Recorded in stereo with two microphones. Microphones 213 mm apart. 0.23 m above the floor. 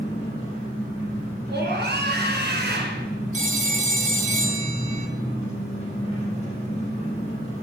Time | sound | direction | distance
0.0 | an engine running | 30° left (ahead or behind) | 6 m
1.5 | a scream | 50° right (ahead or behind) | 2.5 m
3.3 | a phone ringing | 35° right (ahead or behind) | 1.0 m